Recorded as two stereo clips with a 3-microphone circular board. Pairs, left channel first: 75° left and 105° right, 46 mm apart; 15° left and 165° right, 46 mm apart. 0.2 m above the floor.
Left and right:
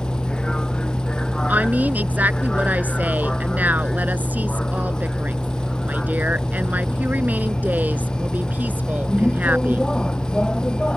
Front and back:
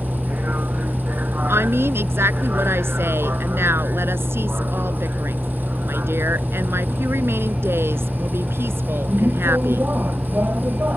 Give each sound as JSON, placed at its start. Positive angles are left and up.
{"t": 0.0, "sound": "a vehicle", "azimuth_deg": 150}
{"t": 1.5, "sound": "a woman speaking", "azimuth_deg": -155}